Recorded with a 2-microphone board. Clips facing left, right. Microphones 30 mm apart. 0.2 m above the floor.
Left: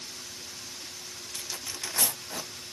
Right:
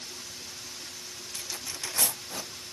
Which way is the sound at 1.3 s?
10° left (ahead or behind).